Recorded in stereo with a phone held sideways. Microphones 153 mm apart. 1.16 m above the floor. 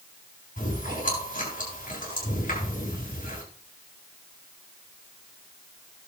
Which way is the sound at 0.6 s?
55° left (ahead or behind).